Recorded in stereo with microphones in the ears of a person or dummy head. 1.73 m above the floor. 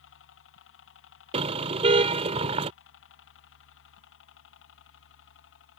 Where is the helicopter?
60° left (ahead or behind).